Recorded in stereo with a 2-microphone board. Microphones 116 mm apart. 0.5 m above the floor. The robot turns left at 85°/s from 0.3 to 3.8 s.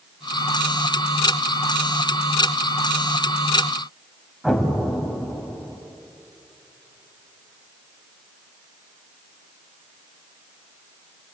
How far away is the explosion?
About 2.5 m.